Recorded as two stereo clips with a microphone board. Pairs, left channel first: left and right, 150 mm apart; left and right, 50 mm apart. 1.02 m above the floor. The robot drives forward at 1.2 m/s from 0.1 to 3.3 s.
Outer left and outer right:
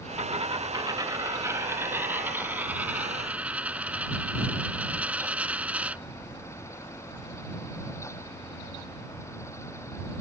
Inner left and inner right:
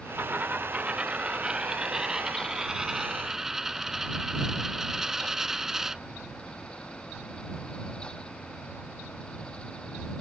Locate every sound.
0.2 s a dropped coin: 50° right (ahead or behind); by 6.0 s 10° right (ahead or behind)